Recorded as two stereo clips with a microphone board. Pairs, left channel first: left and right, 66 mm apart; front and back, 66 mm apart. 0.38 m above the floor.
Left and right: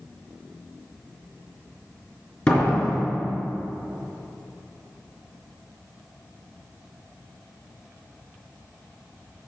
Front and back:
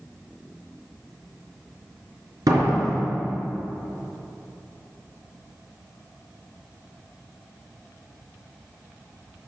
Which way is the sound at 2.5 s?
160° left.